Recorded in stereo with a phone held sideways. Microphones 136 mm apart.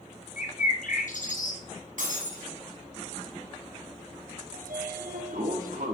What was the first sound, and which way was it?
A bird, 70° left (ahead or behind).